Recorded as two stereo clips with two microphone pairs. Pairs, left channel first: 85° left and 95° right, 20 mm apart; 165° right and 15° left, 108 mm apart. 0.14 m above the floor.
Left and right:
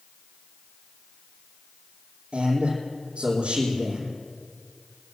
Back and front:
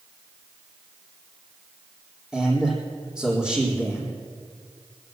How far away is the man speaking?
About 4 m.